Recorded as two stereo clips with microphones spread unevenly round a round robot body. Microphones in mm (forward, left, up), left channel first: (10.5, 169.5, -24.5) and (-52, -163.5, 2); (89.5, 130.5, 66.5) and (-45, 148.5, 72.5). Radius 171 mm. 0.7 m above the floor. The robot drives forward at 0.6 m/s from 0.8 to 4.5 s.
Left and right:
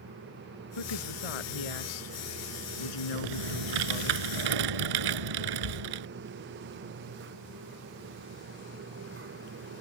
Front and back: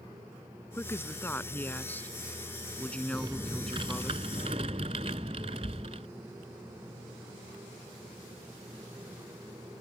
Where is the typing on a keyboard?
110° right; by 6.1 s 120° right.